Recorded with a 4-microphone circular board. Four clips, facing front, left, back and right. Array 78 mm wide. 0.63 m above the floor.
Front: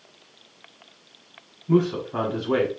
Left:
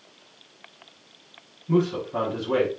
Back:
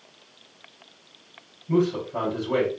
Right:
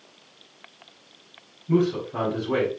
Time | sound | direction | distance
1.7 | a man speaking | 10° left | 1.4 m